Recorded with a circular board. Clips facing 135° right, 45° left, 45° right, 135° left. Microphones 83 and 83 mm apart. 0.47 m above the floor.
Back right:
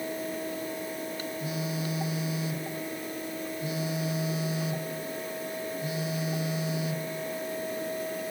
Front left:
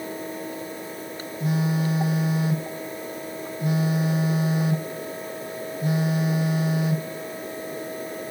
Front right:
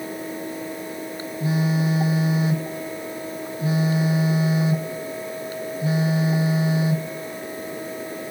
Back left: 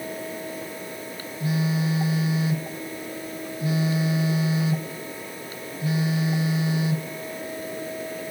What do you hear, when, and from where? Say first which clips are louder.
1.4 s a phone buzzing: front left 11 dB, front right 3 dB; 15° left, 2.5 m